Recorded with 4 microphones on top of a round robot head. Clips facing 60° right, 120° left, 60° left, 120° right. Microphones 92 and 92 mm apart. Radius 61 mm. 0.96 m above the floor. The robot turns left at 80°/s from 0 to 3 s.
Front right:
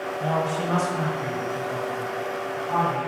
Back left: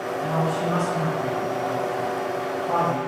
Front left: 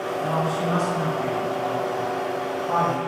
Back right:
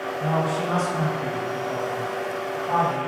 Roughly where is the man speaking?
Ahead.